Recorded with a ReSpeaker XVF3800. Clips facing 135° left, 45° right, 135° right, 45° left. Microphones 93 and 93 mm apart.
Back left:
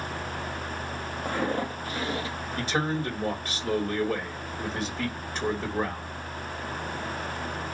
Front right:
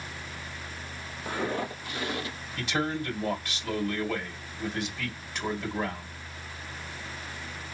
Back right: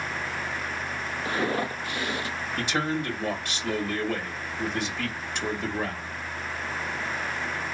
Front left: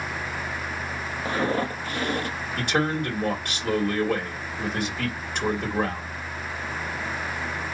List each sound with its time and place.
1.2 s footsteps: 105° left, 1.4 m; by 2.4 s 80° left, 1.3 m
2.6 s a man speaking: 85° left, 2.5 m